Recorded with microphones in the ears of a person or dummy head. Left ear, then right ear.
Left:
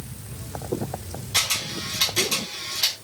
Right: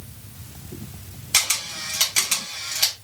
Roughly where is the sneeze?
I don't hear a sneeze.